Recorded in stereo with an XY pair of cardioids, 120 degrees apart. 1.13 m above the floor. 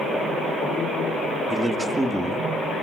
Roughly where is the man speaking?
Ahead.